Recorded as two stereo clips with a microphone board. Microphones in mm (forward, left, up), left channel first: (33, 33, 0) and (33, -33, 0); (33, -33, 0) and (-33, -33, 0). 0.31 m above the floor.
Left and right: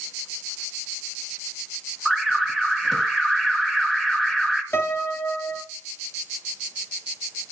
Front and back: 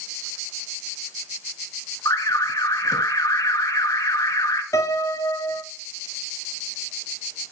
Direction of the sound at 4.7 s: 35° left.